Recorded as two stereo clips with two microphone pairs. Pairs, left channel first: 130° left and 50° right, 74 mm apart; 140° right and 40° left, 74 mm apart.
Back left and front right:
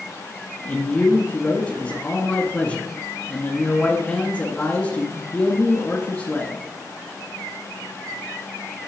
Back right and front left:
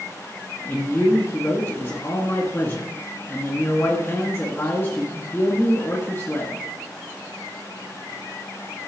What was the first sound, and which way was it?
A man speaking, 175° right.